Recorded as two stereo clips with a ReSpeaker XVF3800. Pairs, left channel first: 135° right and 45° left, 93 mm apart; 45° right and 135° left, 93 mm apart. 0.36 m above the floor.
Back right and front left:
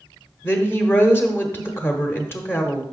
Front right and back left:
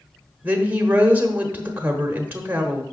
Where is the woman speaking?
170° right, 0.9 m.